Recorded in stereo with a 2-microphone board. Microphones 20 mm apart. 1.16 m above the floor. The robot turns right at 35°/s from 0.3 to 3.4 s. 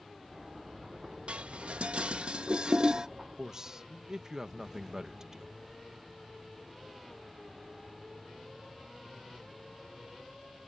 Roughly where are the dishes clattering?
Right.